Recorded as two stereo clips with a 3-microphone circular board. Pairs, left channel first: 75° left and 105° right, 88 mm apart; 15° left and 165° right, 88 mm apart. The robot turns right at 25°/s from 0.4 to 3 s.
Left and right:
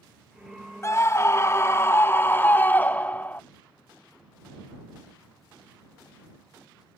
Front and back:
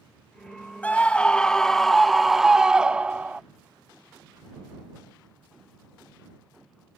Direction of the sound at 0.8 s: 75° left.